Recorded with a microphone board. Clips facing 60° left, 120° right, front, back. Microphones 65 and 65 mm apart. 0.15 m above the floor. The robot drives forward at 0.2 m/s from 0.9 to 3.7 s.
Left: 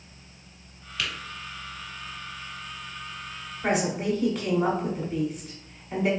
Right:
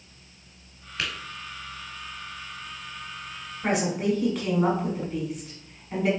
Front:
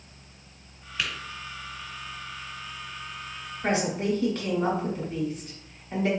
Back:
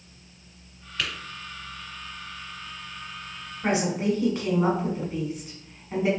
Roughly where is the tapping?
Right.